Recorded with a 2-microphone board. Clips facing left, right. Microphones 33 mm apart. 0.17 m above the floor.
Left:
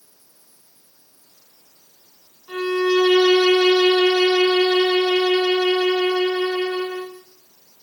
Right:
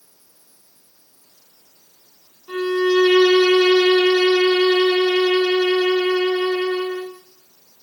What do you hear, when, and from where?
2.5 s a violin: 30° right (ahead or behind), 9.5 m